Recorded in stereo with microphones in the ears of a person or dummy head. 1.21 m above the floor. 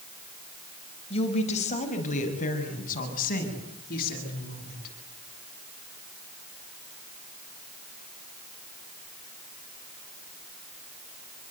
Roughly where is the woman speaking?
Left.